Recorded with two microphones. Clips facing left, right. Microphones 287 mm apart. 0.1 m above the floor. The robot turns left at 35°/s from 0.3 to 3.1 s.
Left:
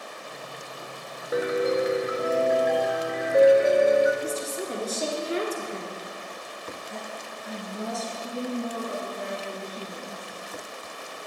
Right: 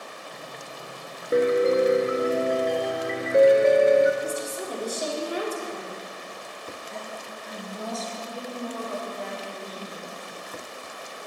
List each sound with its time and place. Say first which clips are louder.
1.3 s a piano: right 4 dB; 65° right, 0.8 m; by 4.1 s 125° right, 0.8 m
4.2 s a woman speaking: even; 25° left (ahead or behind), 1.5 m
6.9 s a woman speaking: even; 15° left (ahead or behind), 1.8 m
8.2 s a woman speaking: left 4 dB; 55° left (ahead or behind), 3 m